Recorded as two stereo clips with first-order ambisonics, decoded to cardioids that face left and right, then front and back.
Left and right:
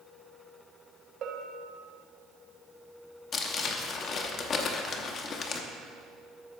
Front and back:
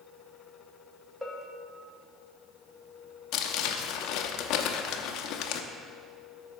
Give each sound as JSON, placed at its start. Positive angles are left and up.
{"t": 1.2, "sound": "a bell", "azimuth_deg": -95, "distance_m": 0.9}
{"t": 3.3, "sound": "crumpling", "azimuth_deg": 30, "distance_m": 0.8}